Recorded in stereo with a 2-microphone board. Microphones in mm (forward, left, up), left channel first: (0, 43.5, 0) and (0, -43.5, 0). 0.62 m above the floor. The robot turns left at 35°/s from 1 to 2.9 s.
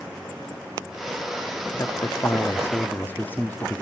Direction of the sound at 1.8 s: 70° left.